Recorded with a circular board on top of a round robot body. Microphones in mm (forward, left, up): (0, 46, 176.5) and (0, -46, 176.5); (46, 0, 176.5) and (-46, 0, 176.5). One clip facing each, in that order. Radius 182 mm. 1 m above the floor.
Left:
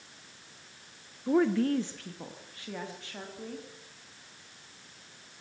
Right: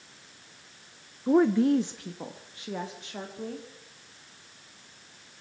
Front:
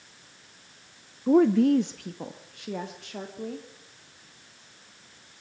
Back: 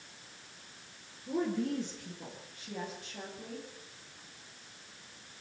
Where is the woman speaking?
20° right, 0.6 m; by 3.7 s 25° right, 2.5 m.